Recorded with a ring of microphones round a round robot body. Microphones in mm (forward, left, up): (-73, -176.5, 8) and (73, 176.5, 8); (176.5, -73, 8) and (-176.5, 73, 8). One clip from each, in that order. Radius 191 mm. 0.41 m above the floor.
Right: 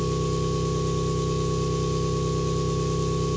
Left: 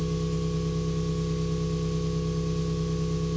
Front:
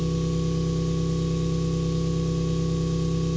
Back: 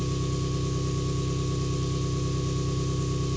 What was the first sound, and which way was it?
An engine running, 130° right.